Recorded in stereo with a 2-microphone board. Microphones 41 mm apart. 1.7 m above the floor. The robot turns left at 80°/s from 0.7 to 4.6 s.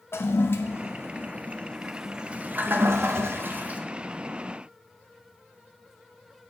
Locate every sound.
0.1 s a toilet flushing: 70° left (ahead or behind), 0.5 m; by 3.8 s 30° right (ahead or behind), 0.5 m